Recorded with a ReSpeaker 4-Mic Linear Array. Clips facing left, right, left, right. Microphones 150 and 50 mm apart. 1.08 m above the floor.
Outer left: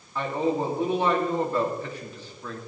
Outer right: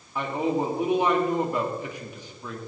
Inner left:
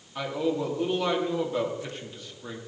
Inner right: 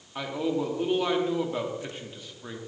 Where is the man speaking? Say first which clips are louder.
Even, inner left 1 dB; 15° right (ahead or behind), 3 m.